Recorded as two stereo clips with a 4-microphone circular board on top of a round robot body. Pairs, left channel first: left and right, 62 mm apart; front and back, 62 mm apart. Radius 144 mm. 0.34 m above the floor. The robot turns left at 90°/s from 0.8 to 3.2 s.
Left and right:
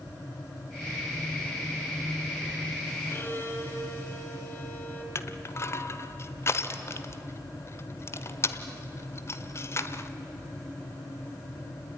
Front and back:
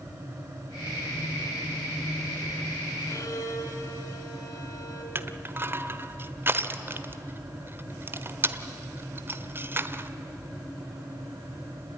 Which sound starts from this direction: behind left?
Crushing, at 5.2 s.